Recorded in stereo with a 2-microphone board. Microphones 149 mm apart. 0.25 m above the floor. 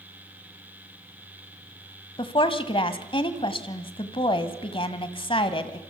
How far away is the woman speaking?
About 1.4 m.